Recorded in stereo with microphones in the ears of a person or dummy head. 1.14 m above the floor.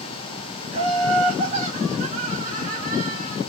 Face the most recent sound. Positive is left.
turn(degrees=-30)  # may be behind; listen again after turning